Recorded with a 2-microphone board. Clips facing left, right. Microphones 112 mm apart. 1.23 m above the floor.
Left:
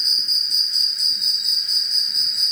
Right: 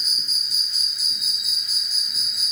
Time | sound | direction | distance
0.0 | an insect | 5° right (ahead or behind) | ?